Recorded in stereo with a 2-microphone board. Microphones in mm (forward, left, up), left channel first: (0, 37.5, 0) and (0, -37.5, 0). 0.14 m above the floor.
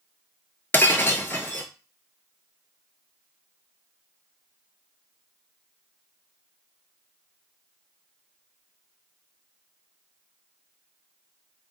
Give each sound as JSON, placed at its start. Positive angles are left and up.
{"t": 0.7, "sound": "breaking glass", "side_deg": 30, "distance_m": 0.6}